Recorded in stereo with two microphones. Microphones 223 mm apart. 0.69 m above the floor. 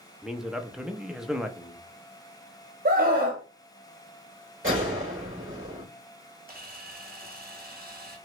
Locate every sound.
0.2 s a man speaking: 5° right (ahead or behind), 0.5 m
2.9 s a scream: 45° right (ahead or behind), 0.8 m
4.6 s a gunshot: 55° right (ahead or behind), 2.5 m
6.5 s a camera shutter: 40° right (ahead or behind), 1.4 m